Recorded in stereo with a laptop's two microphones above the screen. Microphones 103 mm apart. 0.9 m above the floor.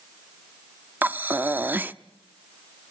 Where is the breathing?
20° right (ahead or behind), 0.6 m.